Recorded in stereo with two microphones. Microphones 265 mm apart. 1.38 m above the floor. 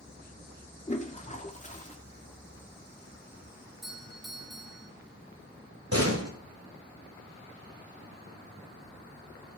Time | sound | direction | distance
0.9 | a toilet flushing | 30° left (ahead or behind) | 1.9 m
3.8 | a doorbell | centre (ahead or behind) | 3.5 m
5.9 | a door slam | 85° right | 5.5 m